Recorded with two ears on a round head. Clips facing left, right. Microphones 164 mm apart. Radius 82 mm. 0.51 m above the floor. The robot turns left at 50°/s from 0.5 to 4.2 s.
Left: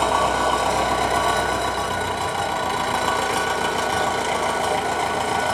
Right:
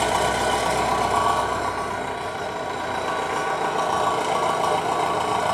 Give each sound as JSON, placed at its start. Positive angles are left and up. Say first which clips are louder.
{"t": 0.0, "sound": "an engine running", "louder": "left 1 dB", "azimuth_deg": -165, "distance_m": 1.3}